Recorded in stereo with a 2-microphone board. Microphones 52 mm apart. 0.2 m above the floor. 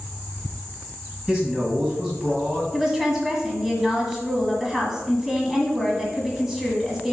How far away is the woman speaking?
About 1.5 m.